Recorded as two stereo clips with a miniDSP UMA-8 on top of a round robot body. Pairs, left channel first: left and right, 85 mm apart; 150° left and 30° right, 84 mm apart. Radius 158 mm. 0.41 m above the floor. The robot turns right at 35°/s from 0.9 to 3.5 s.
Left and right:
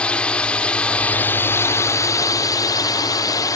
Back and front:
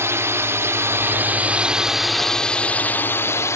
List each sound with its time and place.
0.0 s a drone: 20° left; by 3.6 s 110° left